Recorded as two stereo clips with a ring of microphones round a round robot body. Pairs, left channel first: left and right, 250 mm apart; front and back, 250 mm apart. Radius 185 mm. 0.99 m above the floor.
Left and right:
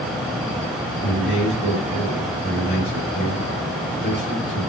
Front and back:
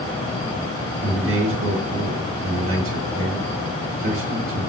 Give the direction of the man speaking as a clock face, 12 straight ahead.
7 o'clock.